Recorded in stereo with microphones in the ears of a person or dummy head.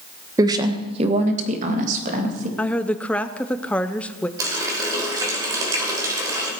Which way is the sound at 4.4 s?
20° right (ahead or behind).